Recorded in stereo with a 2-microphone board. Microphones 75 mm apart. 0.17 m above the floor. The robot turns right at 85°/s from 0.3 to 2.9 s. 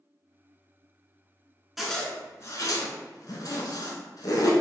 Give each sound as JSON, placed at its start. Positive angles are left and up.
{"t": 1.8, "sound": "a zipper", "side_deg": 0, "distance_m": 0.6}